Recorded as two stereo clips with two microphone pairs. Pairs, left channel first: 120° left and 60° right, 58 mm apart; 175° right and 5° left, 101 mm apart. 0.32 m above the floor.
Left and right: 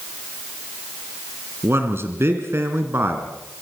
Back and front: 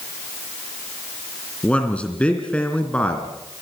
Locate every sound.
1.6 s a man speaking: 100° right, 3 m